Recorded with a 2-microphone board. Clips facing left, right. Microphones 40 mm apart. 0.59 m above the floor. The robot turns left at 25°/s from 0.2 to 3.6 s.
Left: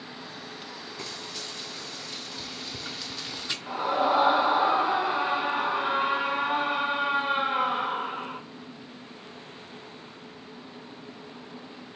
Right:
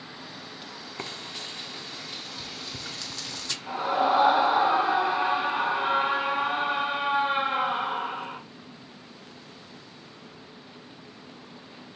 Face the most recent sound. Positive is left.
turn(degrees=0)  # may be behind; listen again after turning